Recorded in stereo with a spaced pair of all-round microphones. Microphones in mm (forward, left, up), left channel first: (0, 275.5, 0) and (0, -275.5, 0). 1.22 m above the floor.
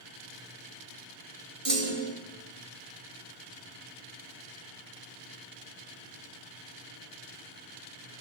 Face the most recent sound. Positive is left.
turn(degrees=-75)  # may be behind; listen again after turning